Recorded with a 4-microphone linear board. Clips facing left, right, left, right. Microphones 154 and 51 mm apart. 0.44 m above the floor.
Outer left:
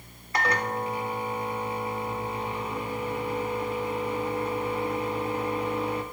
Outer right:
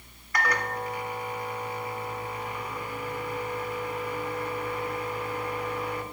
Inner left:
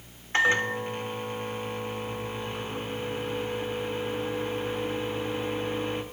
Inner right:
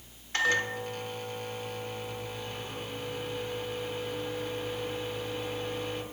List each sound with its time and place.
0.3 s a microwave: 25° left (ahead or behind), 1.0 m